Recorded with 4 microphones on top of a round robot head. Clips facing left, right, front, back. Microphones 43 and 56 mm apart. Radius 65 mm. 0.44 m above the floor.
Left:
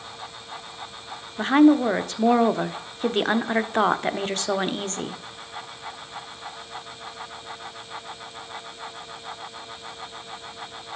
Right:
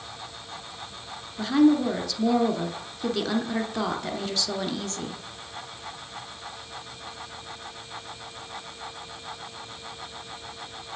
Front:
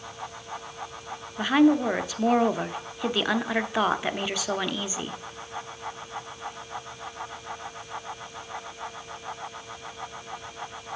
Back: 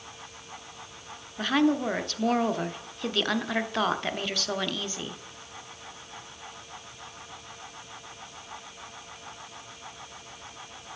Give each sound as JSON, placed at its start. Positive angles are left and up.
{"t": 1.4, "sound": "a woman speaking", "azimuth_deg": 75, "distance_m": 1.0}